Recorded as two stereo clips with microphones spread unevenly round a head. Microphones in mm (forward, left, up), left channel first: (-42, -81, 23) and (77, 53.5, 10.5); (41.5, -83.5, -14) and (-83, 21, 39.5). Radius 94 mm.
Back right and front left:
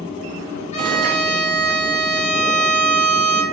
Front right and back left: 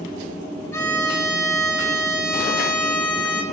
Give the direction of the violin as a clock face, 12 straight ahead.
3 o'clock.